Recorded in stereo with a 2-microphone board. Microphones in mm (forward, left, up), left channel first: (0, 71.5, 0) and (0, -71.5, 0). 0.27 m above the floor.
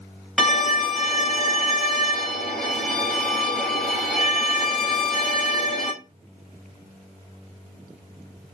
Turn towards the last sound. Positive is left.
turn(degrees=0)  # may be behind; listen again after turning